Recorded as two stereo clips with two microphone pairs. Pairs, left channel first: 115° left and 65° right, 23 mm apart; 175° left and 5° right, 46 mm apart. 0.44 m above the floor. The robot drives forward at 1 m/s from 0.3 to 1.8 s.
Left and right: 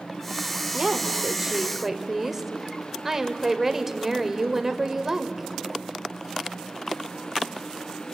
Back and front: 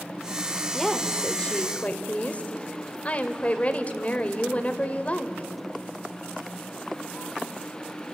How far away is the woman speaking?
About 1.8 m.